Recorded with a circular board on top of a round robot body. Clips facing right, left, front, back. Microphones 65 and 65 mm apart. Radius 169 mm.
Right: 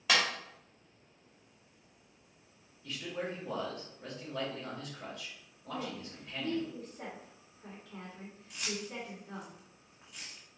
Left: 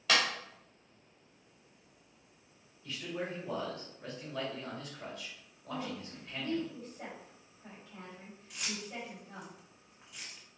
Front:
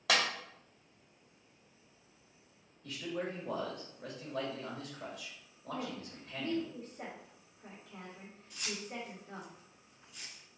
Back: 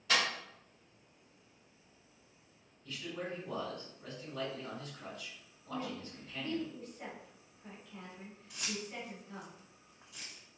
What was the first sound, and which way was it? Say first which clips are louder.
A clap: even, front 1 dB; 10° right.